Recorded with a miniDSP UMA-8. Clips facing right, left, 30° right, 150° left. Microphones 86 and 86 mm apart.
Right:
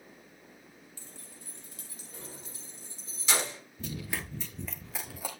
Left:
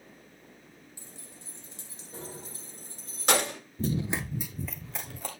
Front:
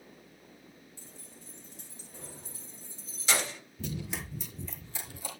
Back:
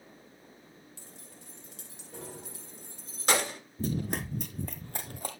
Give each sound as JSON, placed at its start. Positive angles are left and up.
{"t": 1.0, "sound": "keys jangling", "azimuth_deg": 165, "distance_m": 2.5}
{"t": 3.8, "sound": "running footsteps", "azimuth_deg": 115, "distance_m": 0.8}